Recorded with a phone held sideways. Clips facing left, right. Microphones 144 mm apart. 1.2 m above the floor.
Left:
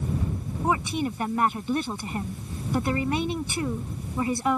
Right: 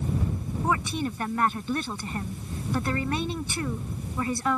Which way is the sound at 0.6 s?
15° left (ahead or behind).